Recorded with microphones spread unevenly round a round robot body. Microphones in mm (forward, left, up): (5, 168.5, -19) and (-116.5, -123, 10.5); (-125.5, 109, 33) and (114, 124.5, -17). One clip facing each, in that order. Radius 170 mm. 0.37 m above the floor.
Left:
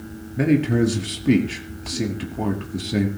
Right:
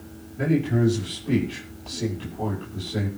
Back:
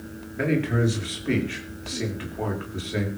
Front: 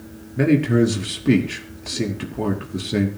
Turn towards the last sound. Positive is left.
turn(degrees=40)